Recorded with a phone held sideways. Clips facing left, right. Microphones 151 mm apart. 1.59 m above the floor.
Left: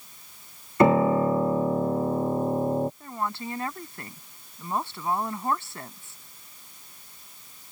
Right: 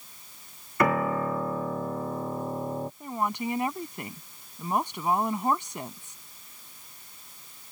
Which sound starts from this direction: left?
A piano, at 0.8 s.